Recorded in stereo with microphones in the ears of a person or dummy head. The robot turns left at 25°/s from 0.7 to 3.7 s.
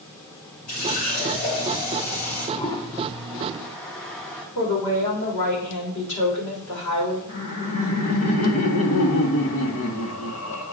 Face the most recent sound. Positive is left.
turn(degrees=80)